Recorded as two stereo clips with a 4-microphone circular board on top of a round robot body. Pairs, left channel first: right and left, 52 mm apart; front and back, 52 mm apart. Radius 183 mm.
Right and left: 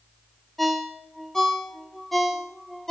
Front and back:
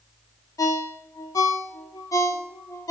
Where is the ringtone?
Straight ahead, 0.9 m.